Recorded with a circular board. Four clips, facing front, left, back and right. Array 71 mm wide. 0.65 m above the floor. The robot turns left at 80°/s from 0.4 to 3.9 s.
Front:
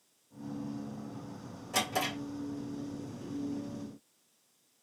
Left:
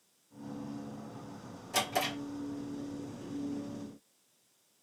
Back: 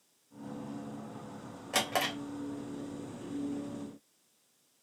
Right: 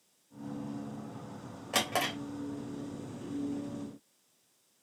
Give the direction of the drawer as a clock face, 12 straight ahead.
4 o'clock.